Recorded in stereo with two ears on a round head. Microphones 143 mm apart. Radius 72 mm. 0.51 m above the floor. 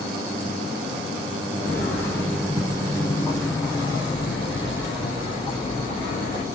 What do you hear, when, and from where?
1.5 s footsteps: 15° left (ahead or behind), 6 m; by 6.5 s 45° left (ahead or behind), 4.5 m